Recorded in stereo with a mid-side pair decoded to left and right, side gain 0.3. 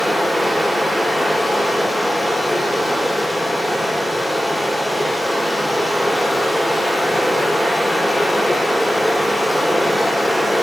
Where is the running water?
10° left, 2.5 m.